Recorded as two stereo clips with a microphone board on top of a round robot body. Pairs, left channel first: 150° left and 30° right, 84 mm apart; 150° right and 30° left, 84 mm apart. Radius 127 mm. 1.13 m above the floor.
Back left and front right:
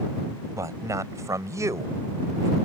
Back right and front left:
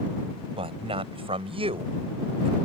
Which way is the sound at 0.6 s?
25° left.